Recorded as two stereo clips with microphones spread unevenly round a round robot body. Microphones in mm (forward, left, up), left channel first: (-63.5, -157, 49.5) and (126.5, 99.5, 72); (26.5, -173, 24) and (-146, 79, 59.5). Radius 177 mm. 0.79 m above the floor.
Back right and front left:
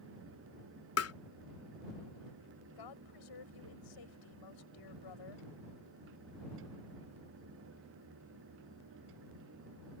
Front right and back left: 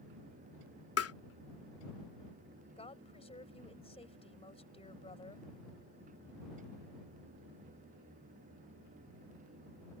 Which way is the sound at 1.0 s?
90° right.